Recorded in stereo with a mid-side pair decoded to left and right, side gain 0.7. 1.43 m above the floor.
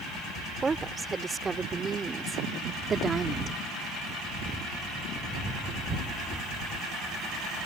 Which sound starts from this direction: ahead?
A woman speaking, at 0.6 s.